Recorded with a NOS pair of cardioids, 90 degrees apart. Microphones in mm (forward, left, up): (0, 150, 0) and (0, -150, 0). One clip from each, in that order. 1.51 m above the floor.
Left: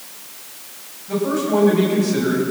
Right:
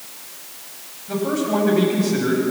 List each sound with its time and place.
1.1 s a man speaking: 10° right, 9 m